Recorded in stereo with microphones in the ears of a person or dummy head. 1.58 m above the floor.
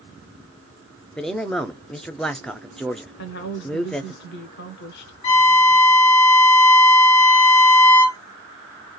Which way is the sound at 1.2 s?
5° left (ahead or behind).